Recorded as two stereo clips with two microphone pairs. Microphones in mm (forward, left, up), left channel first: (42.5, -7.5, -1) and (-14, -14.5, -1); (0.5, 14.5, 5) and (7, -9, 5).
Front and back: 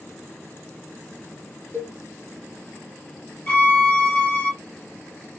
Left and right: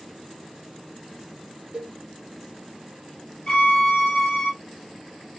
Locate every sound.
1.7 s a cowbell: 35° right, 1.0 m
3.5 s a violin: 60° left, 1.5 m